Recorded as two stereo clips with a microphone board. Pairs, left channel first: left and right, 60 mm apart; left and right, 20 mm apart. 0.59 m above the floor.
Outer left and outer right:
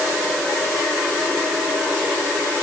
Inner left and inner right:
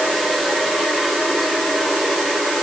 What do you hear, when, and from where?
Only background noise.